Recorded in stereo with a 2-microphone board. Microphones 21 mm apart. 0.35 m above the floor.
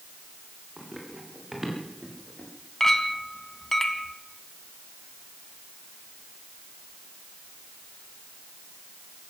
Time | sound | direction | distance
0.8 | running footsteps | 20° right (ahead or behind) | 7 m
2.8 | a clink | 15° left (ahead or behind) | 1.8 m